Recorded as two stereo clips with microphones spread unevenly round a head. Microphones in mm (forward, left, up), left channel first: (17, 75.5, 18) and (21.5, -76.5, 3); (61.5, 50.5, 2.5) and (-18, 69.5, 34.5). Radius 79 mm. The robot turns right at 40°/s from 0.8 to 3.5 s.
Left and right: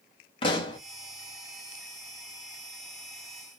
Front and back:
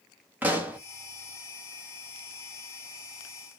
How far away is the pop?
About 0.9 m.